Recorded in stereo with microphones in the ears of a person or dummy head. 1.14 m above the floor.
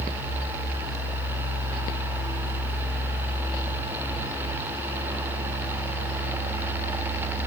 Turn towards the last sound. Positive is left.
No sound to turn to.